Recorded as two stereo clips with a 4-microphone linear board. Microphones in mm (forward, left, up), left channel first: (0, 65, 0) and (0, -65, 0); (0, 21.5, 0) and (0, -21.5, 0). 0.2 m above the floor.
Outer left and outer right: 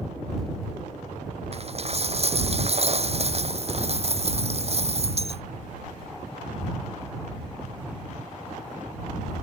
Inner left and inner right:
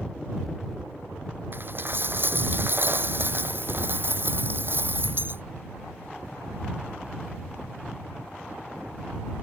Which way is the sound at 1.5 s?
50° right (ahead or behind).